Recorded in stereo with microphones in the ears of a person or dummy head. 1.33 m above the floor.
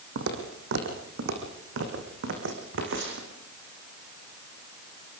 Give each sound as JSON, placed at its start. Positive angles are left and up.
{"t": 0.1, "sound": "footsteps", "side_deg": -60, "distance_m": 3.5}